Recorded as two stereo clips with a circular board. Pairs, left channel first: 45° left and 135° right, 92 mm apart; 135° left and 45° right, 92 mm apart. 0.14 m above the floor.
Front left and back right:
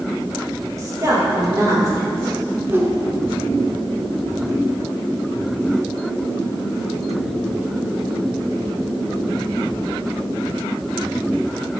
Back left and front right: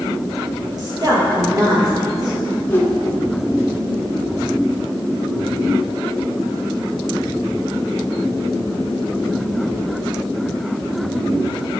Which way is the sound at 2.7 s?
175° right.